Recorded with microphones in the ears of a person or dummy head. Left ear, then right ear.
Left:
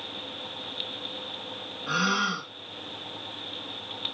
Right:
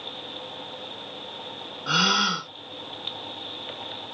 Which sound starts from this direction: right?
A gasp, at 1.9 s.